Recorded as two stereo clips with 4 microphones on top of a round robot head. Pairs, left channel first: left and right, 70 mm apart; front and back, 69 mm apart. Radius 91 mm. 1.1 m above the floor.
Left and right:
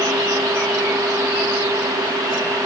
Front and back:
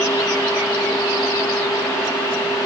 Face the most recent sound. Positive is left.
No sound to turn to.